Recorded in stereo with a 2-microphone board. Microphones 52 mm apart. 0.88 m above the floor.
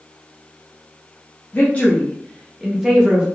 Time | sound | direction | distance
1.5 | a woman speaking | 30° left (ahead or behind) | 1.0 m